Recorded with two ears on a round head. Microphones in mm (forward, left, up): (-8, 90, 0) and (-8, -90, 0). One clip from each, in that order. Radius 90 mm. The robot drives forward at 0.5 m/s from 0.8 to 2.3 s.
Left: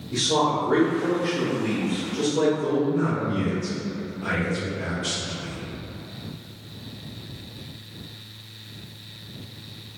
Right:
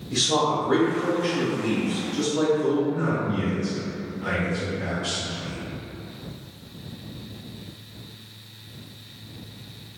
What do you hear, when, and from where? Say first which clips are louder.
0.1 s a man speaking: even; 15° right (ahead or behind), 0.9 m; by 2.8 s 10° right (ahead or behind), 1.4 m
2.9 s a man speaking: left 1 dB; 25° left (ahead or behind), 0.9 m